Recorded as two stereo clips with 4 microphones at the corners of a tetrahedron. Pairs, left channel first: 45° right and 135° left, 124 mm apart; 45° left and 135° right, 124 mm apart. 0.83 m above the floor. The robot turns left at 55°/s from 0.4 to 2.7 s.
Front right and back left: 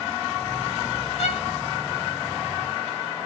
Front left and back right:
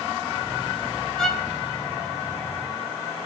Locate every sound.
1.2 s a violin: 35° right, 1.6 m; by 1.4 s 50° right, 1.6 m